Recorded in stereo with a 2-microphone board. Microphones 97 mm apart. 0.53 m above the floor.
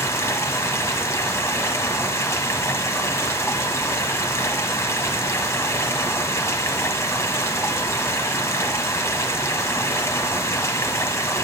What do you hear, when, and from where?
0.0 s running water: 30° left (ahead or behind), 1.5 m